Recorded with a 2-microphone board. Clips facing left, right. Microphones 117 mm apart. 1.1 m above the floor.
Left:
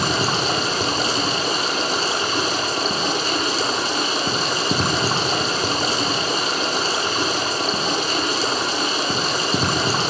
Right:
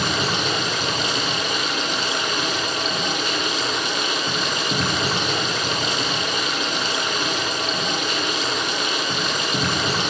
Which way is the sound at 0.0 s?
35° left (ahead or behind).